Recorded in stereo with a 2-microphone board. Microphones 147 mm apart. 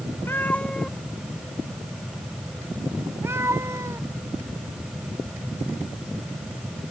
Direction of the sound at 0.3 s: 15° left (ahead or behind).